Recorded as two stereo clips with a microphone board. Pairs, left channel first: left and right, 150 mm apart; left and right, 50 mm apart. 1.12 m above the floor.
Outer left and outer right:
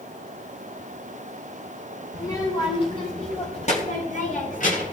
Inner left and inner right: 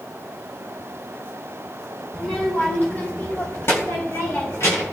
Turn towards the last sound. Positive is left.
turn(degrees=60)  # may be behind; listen again after turning